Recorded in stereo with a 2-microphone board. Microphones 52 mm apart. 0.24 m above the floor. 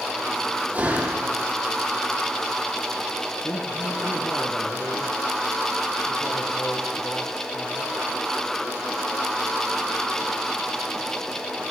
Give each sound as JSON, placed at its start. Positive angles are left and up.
{"t": 0.7, "sound": "a door slam", "side_deg": -35, "distance_m": 6.0}
{"t": 3.4, "sound": "a man speaking", "side_deg": 50, "distance_m": 4.0}